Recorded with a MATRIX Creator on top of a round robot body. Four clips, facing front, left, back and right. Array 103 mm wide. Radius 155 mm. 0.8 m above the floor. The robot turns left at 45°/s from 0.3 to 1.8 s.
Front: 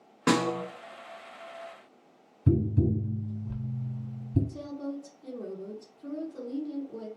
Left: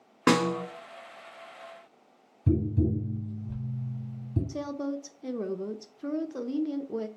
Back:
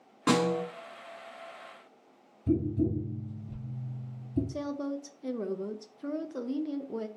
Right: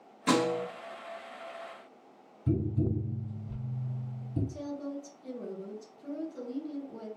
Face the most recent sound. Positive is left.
turn(degrees=125)